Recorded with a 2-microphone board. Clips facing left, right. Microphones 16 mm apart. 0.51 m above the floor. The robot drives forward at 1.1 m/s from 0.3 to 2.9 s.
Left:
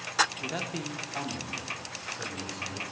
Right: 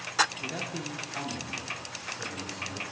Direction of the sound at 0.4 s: 25° left (ahead or behind).